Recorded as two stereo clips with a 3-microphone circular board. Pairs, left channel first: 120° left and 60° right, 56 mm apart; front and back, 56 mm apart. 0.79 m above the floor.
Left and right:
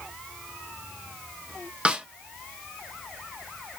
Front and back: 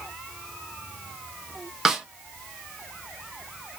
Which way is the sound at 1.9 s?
105° right.